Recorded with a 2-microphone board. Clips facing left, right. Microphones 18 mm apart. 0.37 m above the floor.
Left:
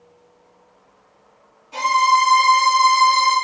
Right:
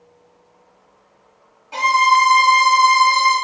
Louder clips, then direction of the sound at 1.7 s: Right 2 dB; 55° right (ahead or behind).